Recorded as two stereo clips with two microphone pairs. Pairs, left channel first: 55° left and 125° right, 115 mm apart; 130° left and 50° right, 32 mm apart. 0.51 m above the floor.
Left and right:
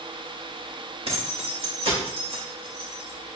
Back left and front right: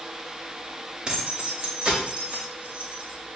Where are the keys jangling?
105° right, 1.1 m; by 3.3 s 85° right, 2 m.